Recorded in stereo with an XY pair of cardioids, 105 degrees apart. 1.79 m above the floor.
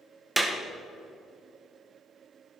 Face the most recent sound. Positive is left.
turn(degrees=-15)